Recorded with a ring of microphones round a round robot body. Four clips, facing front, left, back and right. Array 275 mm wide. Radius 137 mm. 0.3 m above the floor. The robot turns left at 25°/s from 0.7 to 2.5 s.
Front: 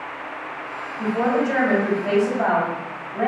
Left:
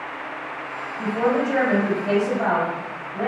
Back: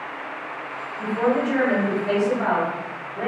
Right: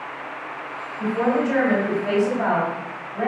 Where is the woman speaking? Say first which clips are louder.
Even, front 1 dB; 10° left, 1.8 m; by 3.3 s 30° right, 1.8 m.